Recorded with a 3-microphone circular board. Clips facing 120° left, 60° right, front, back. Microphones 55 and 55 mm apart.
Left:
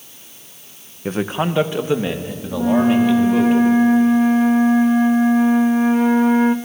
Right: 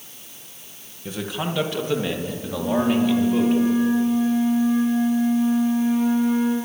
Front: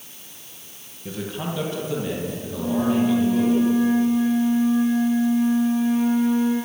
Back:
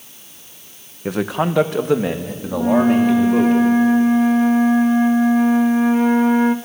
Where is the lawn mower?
No lawn mower in this recording.